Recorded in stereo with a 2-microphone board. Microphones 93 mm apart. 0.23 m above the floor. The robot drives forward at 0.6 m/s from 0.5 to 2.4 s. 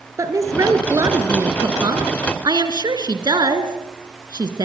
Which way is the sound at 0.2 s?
35° right (ahead or behind).